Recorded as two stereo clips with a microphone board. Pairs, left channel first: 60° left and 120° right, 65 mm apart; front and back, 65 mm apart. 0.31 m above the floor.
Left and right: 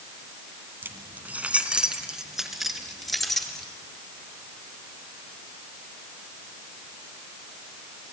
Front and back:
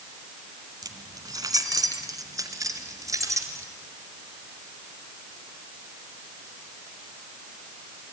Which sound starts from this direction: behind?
Keys jangling, at 0.8 s.